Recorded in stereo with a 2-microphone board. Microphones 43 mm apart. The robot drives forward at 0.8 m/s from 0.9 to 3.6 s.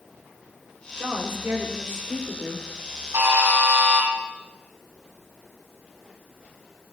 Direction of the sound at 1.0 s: 75° right (ahead or behind).